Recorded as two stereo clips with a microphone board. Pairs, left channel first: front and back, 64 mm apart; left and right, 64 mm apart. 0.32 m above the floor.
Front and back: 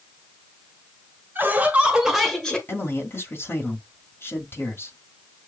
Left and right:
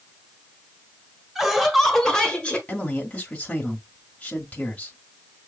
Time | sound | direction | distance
1.4 | laughter | 175° right | 1.4 m
2.7 | a man speaking | 30° left | 1.4 m